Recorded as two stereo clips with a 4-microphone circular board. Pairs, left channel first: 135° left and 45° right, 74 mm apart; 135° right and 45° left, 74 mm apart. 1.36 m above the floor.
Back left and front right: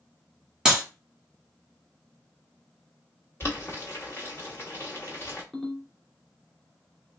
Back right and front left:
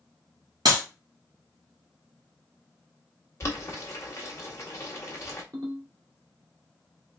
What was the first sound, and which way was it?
A clap, 35° left.